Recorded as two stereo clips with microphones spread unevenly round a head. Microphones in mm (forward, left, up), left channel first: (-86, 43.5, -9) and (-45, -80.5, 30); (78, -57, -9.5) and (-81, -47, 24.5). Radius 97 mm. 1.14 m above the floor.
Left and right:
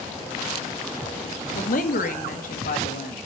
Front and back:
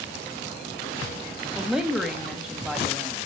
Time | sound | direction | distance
1.6 | a woman speaking | 85° left | 1.6 m